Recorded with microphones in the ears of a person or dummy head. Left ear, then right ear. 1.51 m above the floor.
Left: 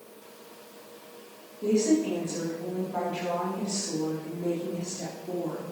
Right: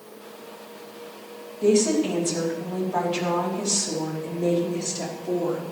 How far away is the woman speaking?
About 3.5 m.